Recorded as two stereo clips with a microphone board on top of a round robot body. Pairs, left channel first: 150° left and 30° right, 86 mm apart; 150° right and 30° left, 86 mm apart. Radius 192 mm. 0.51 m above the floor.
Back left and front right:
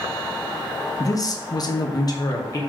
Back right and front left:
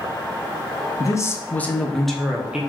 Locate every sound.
1.0 s a man speaking: straight behind, 0.8 m; by 2.6 s 110° left, 1.1 m